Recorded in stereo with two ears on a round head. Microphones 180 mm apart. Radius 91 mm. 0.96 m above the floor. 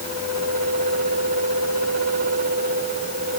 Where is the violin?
No violin in this recording.